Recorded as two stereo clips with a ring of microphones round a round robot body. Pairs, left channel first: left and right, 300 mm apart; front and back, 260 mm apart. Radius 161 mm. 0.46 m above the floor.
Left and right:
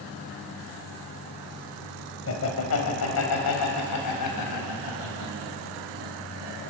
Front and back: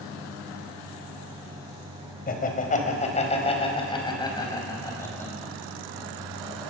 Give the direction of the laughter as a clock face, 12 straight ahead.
10 o'clock.